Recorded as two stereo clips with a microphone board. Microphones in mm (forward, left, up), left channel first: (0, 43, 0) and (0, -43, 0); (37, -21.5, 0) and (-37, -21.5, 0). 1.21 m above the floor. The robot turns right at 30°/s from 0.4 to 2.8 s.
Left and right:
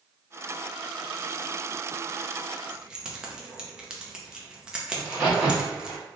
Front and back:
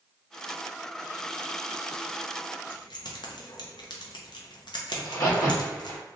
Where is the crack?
15° right, 1.9 m.